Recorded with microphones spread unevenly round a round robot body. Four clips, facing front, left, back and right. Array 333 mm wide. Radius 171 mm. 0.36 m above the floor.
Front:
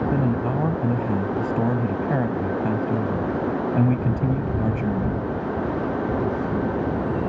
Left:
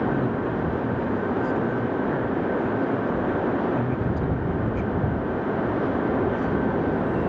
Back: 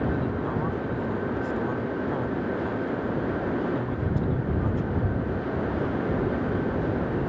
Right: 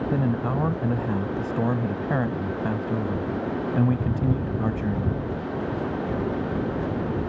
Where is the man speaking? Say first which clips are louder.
Even, front 5 dB; 30° right.